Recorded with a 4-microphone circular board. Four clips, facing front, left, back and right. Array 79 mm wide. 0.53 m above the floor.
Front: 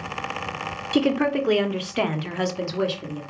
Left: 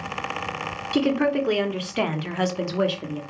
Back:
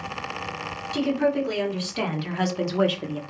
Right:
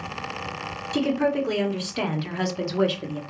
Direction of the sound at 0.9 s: 25° left.